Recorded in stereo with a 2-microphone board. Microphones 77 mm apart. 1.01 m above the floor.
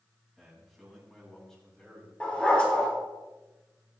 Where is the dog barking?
15° left (ahead or behind), 7 m.